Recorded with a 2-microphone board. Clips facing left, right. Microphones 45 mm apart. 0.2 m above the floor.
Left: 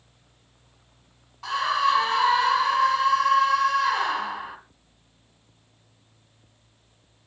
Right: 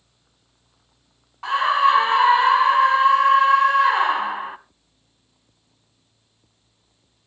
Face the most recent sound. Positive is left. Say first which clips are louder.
# right 5 dB
turn(degrees=-25)  # may be behind; listen again after turning